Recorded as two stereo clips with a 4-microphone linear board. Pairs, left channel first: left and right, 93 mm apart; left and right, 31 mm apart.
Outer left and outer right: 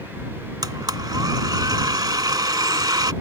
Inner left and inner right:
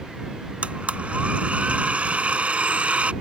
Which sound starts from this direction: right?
A blender, at 0.6 s.